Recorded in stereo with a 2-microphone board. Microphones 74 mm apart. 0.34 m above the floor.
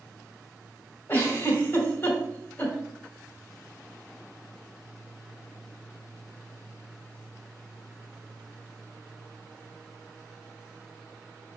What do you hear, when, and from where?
1.1 s a giggle: 25° left (ahead or behind), 2 m